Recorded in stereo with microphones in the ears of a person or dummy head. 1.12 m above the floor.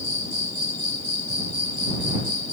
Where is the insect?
30° left (ahead or behind).